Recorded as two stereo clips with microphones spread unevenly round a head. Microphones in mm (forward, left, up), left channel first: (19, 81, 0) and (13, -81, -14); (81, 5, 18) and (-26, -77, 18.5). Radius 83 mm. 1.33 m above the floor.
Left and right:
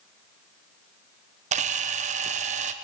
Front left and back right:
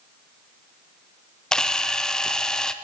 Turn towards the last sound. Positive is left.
turn(degrees=-45)